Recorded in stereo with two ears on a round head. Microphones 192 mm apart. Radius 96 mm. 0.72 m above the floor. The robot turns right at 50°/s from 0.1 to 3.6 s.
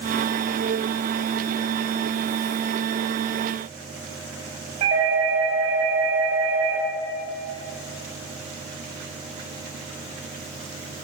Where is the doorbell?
30° right (ahead or behind), 4 m.